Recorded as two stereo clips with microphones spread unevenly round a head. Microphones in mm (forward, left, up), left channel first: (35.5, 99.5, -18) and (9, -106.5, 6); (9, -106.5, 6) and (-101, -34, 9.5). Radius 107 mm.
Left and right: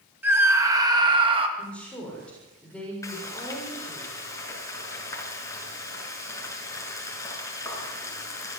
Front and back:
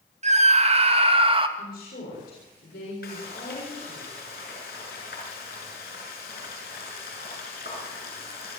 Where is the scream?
Straight behind, 2.5 m; by 1.5 s 165° right, 3 m.